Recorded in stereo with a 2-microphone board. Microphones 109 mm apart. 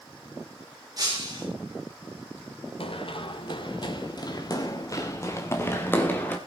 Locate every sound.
1.0 s breaking glass: 40° right (ahead or behind), 5.5 m
2.8 s running footsteps: 60° left (ahead or behind), 2.5 m; by 6.4 s 15° left (ahead or behind), 3.5 m